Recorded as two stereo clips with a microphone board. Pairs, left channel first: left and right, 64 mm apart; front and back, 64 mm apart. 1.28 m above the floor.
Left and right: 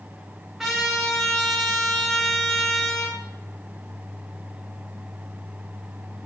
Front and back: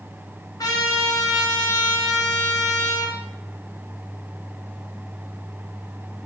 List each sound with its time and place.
0.6 s a trumpet: 5° right, 3 m